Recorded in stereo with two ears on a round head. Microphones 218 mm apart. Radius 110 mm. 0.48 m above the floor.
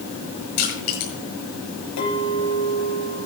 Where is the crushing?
75° left (ahead or behind), 7.5 m.